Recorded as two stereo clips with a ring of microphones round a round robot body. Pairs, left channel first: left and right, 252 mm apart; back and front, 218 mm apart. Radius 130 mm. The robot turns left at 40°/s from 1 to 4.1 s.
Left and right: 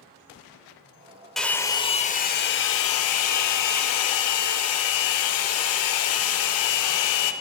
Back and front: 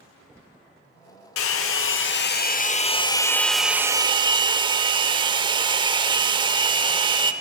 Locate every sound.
1.4 s a hair dryer: straight behind, 0.7 m; by 7.3 s 70° left, 0.7 m